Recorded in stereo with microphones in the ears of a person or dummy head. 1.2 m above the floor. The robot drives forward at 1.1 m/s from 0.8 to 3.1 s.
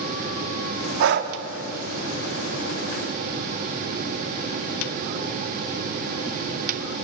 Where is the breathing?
50° right (ahead or behind), 1.1 m; by 1.3 s 40° right (ahead or behind), 1.3 m.